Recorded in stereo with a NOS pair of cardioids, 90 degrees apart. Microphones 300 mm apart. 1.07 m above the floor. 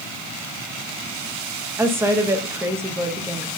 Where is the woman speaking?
10° right, 1.0 m.